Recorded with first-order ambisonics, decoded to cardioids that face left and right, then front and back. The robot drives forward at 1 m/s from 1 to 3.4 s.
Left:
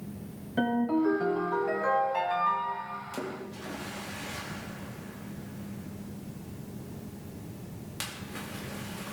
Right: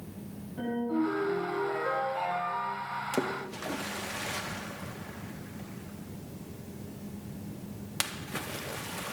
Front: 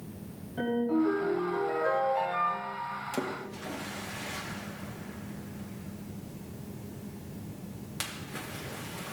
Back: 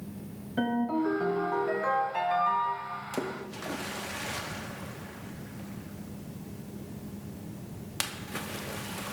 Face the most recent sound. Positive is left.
turn(degrees=-130)